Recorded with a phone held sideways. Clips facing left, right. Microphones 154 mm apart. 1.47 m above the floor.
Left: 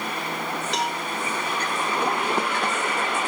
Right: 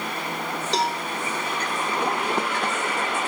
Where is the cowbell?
30° right (ahead or behind), 1.1 m.